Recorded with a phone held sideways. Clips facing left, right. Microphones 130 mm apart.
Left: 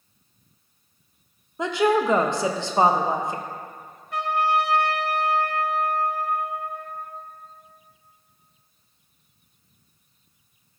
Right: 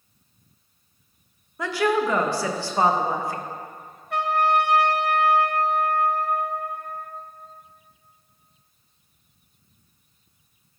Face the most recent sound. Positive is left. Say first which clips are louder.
# right 2 dB
turn(degrees=-75)  # may be behind; listen again after turning